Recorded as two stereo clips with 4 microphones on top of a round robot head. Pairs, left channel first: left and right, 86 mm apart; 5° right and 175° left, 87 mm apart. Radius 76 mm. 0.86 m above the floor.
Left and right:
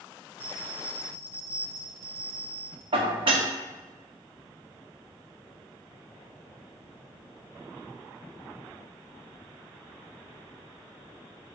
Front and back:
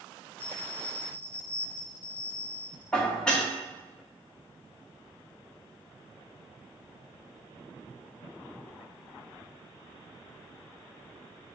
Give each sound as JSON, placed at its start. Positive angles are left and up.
{"t": 0.4, "sound": "a bell", "azimuth_deg": -75, "distance_m": 1.2}
{"t": 2.9, "sound": "dishes clattering", "azimuth_deg": -85, "distance_m": 1.2}